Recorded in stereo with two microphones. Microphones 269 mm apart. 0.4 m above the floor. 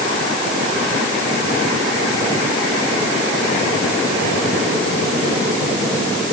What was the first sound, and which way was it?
Only background noise.